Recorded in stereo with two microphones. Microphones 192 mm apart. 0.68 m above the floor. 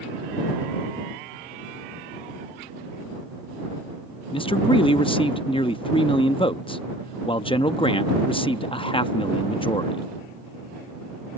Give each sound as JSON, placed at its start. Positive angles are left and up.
{"t": 4.3, "sound": "a man speaking", "side_deg": 30}